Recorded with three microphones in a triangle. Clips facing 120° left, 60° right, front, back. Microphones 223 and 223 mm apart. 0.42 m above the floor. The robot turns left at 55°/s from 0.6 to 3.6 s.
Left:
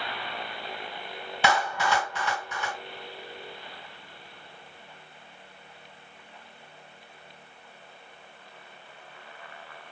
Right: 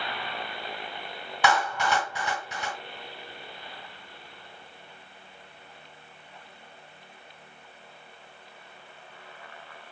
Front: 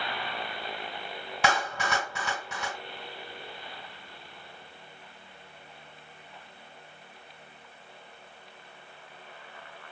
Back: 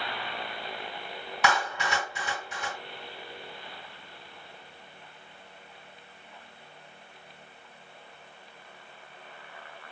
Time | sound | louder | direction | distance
1.4 | a clap | even, even | 55° left | 3 m